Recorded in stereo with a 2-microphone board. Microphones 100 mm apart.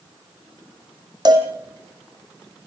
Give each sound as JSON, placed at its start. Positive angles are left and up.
{"t": 1.2, "sound": "a cowbell", "side_deg": -45, "distance_m": 3.0}